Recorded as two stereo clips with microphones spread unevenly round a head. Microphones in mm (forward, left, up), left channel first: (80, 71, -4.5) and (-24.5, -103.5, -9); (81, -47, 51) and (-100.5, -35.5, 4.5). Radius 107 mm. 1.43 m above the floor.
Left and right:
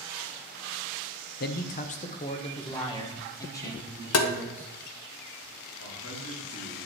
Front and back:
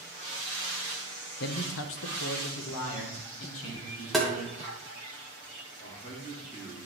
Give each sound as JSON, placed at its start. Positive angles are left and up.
{"t": 1.4, "sound": "a man speaking", "azimuth_deg": 30, "distance_m": 0.5}
{"t": 4.1, "sound": "tapping", "azimuth_deg": 85, "distance_m": 0.7}
{"t": 5.8, "sound": "a man speaking", "azimuth_deg": 60, "distance_m": 2.5}